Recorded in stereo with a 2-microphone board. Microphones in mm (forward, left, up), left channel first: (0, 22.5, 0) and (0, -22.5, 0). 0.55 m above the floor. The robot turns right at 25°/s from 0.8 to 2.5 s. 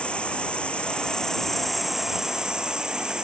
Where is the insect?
155° left; by 3.2 s 165° right.